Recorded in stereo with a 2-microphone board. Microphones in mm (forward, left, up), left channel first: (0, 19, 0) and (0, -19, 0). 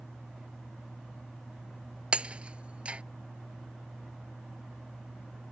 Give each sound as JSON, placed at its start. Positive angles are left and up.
{"t": 2.1, "sound": "breaking glass", "side_deg": -30}